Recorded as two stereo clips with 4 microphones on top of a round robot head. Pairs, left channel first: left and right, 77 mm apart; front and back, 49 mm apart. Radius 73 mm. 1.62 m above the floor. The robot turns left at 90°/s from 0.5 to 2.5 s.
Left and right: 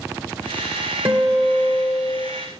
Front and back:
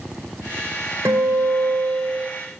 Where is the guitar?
130° right, 1.6 m; by 2.3 s 120° left, 1.6 m.